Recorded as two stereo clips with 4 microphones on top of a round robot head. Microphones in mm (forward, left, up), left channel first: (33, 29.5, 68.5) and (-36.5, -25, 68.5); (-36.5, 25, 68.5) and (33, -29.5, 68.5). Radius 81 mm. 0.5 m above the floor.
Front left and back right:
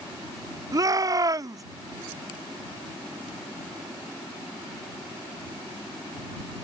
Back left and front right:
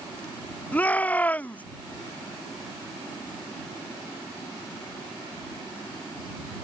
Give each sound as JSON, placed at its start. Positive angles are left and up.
{"t": 0.7, "sound": "a shout", "azimuth_deg": -155}